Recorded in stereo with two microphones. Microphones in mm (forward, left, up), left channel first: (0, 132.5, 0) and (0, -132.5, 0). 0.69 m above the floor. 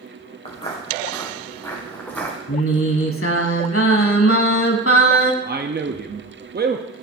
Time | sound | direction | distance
0.5 | footsteps | 20° left (ahead or behind) | 3 m
2.5 | singing | 55° left (ahead or behind) | 0.9 m
5.4 | a man speaking | 40° right (ahead or behind) | 0.6 m